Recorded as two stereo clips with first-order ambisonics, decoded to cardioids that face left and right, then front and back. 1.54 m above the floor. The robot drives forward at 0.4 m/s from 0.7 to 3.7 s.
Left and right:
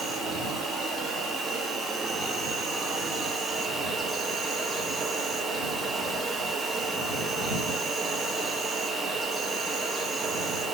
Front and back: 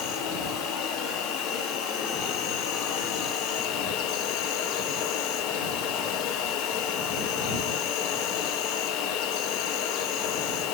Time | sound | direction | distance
0.0 | an insect | 10° right | 4.5 m